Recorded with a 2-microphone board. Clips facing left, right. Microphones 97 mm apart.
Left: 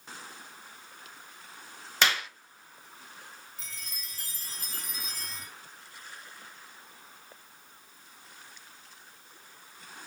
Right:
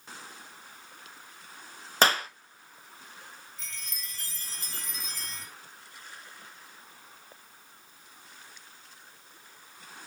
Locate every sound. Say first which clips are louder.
2.0 s a clap: right 4 dB; 40° right (ahead or behind), 0.7 m
3.6 s a chime: right 1 dB; 5° left (ahead or behind), 3 m